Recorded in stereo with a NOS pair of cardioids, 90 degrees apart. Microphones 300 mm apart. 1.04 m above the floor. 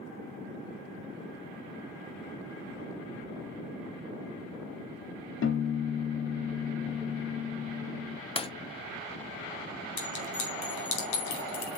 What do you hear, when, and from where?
5.4 s a piano: 45° left, 1.3 m
8.4 s breaking glass: 20° left, 0.8 m
10.0 s a clink: 70° left, 2.5 m